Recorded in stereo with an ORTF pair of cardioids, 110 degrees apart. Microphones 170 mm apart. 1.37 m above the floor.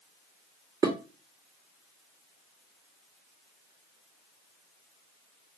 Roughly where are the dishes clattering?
Ahead.